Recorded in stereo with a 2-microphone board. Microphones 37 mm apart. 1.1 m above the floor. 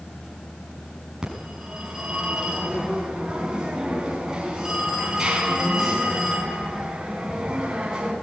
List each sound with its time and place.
1.2 s a phone ringing: 15° right (ahead or behind), 6.5 m